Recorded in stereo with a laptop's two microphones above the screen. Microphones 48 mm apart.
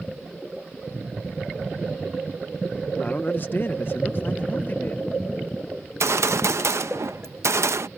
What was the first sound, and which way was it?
A man speaking, 35° left (ahead or behind).